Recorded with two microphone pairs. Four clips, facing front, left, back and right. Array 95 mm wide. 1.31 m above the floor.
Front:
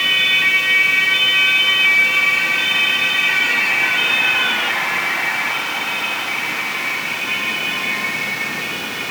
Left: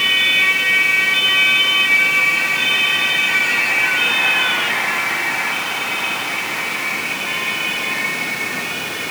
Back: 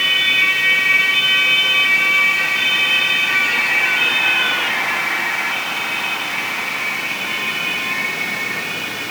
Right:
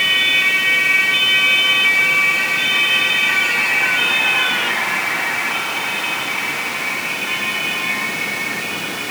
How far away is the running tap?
I don't hear a running tap.